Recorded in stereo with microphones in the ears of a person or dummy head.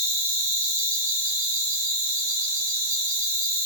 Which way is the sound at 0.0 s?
65° right (ahead or behind).